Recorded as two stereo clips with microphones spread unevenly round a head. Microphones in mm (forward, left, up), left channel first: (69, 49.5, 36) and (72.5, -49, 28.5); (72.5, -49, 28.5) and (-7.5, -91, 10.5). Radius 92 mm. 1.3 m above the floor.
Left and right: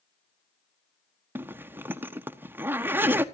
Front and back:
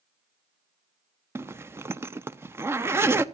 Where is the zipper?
135° right, 0.5 m.